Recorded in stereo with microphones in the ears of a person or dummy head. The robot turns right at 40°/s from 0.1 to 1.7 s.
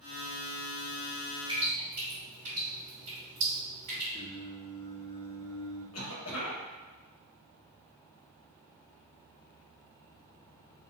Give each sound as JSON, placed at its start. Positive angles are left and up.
{"t": 1.5, "sound": "dripping", "side_deg": -25, "distance_m": 1.8}
{"t": 4.1, "sound": "singing", "side_deg": 20, "distance_m": 0.5}
{"t": 5.9, "sound": "a cough", "side_deg": 80, "distance_m": 0.9}